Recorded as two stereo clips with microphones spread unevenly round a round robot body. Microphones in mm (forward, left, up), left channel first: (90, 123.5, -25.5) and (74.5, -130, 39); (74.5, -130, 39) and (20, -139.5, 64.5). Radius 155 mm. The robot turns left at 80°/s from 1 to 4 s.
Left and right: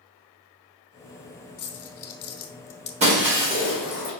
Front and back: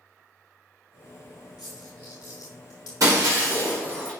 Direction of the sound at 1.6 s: 145° left.